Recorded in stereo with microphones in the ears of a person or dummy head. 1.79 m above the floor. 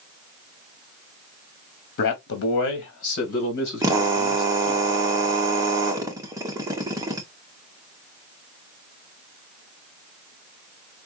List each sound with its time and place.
2.0 s a man speaking: 65° left (ahead or behind), 1.0 m
3.8 s a drill: 10° right (ahead or behind), 0.9 m